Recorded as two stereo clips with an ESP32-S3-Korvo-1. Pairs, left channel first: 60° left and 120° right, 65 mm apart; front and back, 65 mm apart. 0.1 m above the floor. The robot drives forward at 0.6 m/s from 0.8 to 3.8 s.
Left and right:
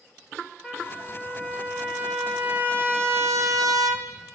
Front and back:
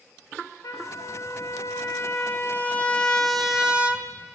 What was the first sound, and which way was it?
A trumpet, 30° right.